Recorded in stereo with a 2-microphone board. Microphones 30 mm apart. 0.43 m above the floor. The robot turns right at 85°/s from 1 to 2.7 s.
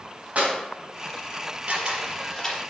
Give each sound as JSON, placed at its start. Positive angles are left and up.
{"t": 0.3, "sound": "a clap", "side_deg": -55, "distance_m": 3.0}
{"t": 1.7, "sound": "a camera shutter", "side_deg": -55, "distance_m": 3.5}